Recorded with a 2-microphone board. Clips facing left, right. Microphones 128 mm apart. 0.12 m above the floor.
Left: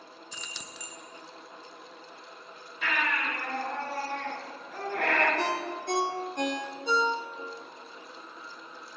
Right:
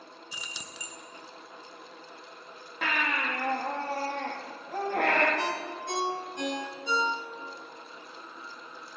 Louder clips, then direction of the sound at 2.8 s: Even; 75° right (ahead or behind).